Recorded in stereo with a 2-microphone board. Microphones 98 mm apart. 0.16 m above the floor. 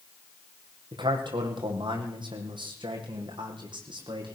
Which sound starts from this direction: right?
A man speaking, at 0.9 s.